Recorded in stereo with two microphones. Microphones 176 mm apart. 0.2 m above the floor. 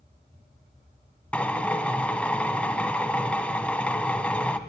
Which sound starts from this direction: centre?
A drill, at 1.3 s.